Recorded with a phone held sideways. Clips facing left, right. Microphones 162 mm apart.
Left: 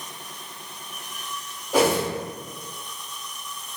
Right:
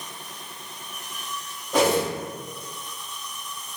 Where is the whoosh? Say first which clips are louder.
Even; 10° left (ahead or behind), 1.0 m.